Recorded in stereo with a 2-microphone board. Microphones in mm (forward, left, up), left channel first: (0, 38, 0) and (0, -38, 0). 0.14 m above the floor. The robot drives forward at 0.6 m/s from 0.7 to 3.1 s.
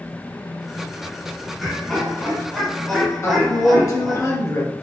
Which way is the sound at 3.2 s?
45° left (ahead or behind).